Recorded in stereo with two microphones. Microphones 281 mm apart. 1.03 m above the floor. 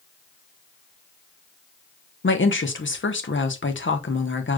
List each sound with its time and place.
2.2 s a woman speaking: 45° left (ahead or behind), 0.6 m